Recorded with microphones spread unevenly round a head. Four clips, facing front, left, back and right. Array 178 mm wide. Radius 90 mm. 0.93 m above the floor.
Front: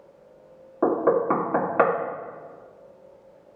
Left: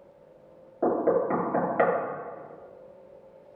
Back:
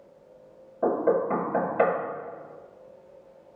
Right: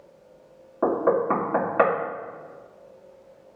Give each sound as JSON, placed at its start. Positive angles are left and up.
{"t": 0.8, "sound": "knocking", "azimuth_deg": -15, "distance_m": 1.7}